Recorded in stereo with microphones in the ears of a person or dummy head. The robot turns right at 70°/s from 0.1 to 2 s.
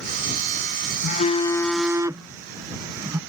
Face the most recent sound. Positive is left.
turn(degrees=-165)